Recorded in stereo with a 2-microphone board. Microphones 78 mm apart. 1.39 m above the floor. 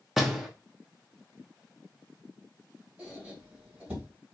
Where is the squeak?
15° right (ahead or behind), 1.7 m.